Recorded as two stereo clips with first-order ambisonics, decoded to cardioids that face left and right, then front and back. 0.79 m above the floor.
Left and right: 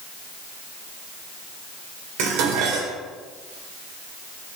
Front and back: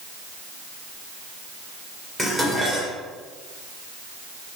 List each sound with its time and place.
2.2 s dishes clattering: 100° right, 2 m